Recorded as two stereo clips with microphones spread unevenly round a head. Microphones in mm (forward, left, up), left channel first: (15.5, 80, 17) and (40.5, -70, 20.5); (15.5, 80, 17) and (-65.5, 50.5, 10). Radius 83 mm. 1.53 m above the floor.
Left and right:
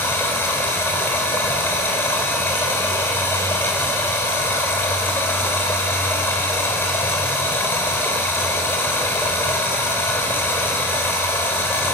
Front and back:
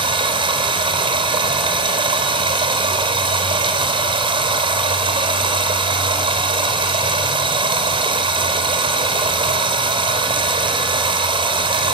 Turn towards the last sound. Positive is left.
turn(degrees=180)